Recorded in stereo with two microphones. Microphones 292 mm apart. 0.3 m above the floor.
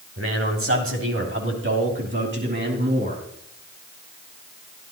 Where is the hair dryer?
I don't hear a hair dryer.